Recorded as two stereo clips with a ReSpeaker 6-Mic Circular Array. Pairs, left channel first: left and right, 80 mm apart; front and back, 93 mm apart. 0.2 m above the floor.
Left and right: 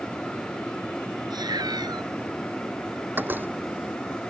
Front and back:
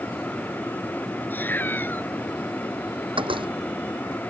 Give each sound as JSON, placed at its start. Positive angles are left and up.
{"t": 1.3, "sound": "a cat meowing", "azimuth_deg": -70}
{"t": 3.2, "sound": "a door slam", "azimuth_deg": -155}